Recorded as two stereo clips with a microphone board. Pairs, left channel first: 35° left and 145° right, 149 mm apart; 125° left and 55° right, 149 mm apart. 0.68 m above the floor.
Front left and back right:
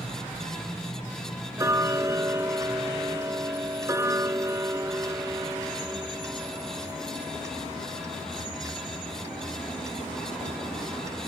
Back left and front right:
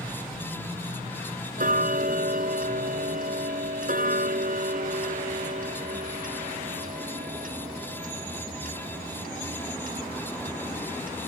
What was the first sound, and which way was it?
Ticking, 75° right.